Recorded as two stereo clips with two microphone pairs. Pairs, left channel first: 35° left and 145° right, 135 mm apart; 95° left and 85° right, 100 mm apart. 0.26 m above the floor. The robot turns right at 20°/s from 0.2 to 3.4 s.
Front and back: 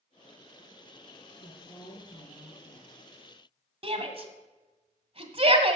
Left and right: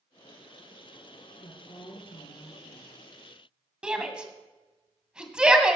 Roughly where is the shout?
Behind.